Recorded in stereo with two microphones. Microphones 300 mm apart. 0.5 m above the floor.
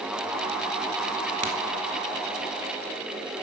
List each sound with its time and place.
1.4 s a crack: 70° right (ahead or behind), 1.2 m